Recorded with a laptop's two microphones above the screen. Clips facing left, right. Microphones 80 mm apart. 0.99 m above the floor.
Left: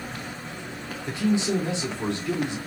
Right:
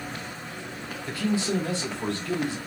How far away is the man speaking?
About 1.0 m.